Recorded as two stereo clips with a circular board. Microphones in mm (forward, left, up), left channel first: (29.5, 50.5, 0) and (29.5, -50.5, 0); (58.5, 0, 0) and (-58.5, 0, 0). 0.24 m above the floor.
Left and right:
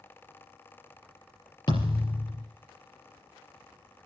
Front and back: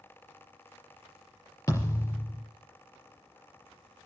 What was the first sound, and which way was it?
A thud, 60° left.